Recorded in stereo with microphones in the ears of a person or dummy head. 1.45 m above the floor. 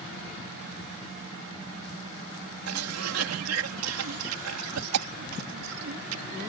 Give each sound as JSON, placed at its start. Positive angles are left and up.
{"t": 2.7, "sound": "a cough", "side_deg": -90}